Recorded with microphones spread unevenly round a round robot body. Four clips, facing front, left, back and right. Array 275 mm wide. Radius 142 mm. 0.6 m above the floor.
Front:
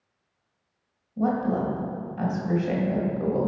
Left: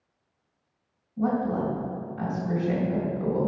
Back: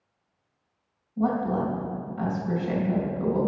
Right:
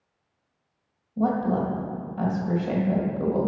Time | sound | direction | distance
1.2 | a woman speaking | 70° right | 2.5 m